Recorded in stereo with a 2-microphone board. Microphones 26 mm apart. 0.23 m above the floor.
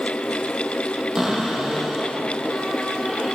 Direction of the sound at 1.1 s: 25° right (ahead or behind).